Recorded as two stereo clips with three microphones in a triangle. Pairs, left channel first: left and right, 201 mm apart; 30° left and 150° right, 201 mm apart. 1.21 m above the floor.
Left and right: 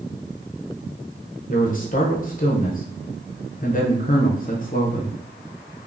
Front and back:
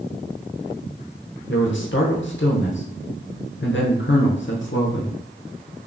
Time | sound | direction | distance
1.5 | a man speaking | 45° left | 0.7 m